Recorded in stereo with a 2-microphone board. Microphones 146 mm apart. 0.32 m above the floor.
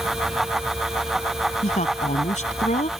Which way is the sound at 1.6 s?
55° left (ahead or behind).